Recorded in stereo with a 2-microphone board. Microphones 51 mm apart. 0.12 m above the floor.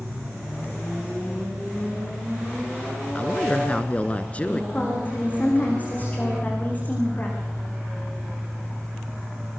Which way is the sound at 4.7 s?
35° left (ahead or behind).